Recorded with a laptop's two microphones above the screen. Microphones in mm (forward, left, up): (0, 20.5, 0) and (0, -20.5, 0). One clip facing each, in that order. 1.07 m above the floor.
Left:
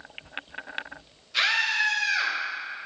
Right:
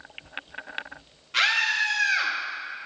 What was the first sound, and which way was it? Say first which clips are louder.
A scream: right 1 dB; 55° right (ahead or behind).